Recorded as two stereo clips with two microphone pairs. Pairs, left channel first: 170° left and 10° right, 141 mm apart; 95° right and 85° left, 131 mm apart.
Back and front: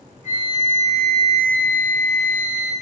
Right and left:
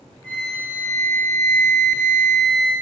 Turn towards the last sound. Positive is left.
turn(degrees=130)